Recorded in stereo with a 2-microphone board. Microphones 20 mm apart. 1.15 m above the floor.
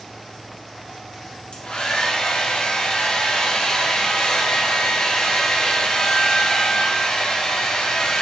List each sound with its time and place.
1.5 s a hair dryer: 60° left (ahead or behind), 0.8 m